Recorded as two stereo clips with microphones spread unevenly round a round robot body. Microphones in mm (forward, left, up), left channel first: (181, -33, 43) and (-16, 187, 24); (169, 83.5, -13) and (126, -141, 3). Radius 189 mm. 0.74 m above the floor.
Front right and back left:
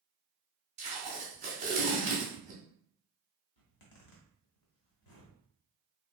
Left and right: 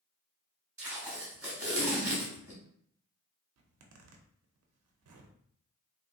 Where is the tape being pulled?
165° right, 0.6 m.